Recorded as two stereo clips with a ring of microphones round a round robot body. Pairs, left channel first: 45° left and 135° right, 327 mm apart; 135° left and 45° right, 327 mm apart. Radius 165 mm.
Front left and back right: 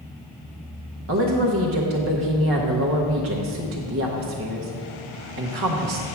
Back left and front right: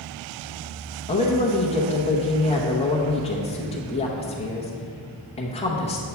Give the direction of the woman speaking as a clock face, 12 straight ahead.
5 o'clock.